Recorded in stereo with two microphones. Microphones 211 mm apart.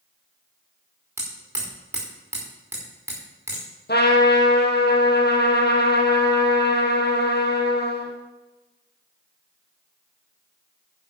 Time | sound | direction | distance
1.2 | hammering | 10° right (ahead or behind) | 4.5 m
3.9 | a trumpet | 50° left (ahead or behind) | 2 m